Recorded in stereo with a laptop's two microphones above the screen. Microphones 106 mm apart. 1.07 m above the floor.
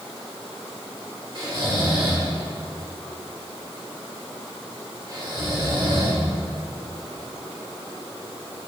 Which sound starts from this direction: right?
Snoring, at 1.4 s.